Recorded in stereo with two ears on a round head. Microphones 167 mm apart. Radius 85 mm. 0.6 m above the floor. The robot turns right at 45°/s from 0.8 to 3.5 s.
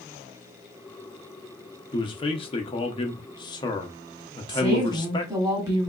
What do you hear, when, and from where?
1.9 s a man speaking: 55° left, 0.7 m; by 5.3 s 125° left, 0.7 m
4.5 s a woman speaking: 20° right (ahead or behind), 1.6 m